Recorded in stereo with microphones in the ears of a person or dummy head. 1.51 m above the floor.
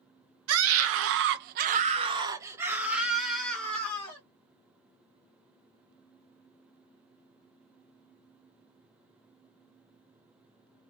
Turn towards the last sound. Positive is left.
turn(degrees=15)  # may be behind; listen again after turning